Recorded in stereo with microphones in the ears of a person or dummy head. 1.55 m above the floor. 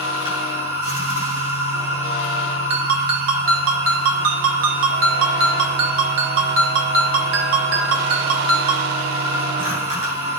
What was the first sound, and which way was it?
A machine running, 40° right (ahead or behind).